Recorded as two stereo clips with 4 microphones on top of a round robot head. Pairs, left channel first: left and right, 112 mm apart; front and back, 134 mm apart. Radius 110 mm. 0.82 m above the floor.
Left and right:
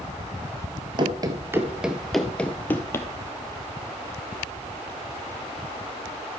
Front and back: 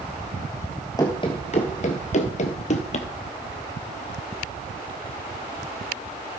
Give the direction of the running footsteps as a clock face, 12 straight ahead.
2 o'clock.